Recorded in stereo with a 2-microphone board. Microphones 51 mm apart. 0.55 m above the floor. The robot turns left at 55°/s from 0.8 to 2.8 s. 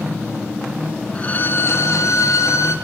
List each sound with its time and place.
1.1 s a violin: 155° left, 2 m; by 2.8 s 65° left, 2 m